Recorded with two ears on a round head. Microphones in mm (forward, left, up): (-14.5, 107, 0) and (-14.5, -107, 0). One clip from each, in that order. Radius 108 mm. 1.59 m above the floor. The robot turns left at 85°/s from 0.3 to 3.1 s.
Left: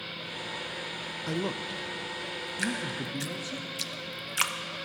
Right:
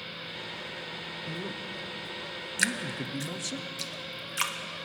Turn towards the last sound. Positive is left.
turn(degrees=10)  # may be behind; listen again after turning